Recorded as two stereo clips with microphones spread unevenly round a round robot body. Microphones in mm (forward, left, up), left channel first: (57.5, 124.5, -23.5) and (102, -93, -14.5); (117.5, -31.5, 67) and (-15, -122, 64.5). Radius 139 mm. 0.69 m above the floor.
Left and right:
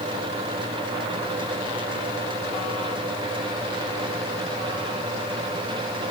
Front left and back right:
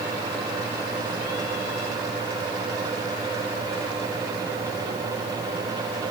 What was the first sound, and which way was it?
Only background noise.